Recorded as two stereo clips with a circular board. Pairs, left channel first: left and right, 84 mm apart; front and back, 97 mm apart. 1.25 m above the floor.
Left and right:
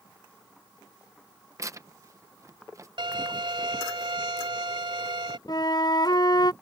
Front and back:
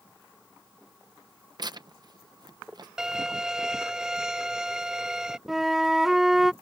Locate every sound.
1.6 s tearing paper: 135° right
3.0 s a violin: 100° right
5.5 s a flute: 90° left